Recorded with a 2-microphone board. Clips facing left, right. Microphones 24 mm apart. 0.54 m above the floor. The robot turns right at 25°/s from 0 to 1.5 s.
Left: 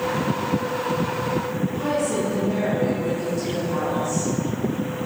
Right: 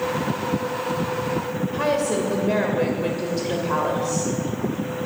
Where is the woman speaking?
65° right (ahead or behind), 2.0 m.